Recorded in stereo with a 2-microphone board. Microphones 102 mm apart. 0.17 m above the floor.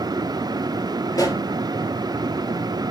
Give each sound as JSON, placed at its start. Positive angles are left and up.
{"t": 1.1, "sound": "a pop", "side_deg": 40, "distance_m": 3.0}